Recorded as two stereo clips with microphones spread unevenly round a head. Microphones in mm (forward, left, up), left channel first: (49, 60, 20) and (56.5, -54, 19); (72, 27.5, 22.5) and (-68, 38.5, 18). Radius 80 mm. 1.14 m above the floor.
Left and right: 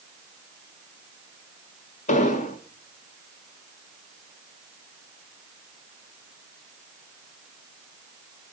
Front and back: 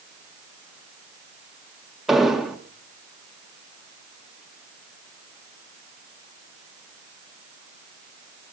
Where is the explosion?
85° left, 2.0 m.